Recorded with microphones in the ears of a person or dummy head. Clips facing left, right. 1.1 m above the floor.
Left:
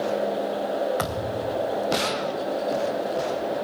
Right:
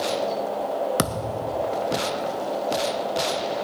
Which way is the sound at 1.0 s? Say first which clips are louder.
Right 1 dB; 40° right (ahead or behind).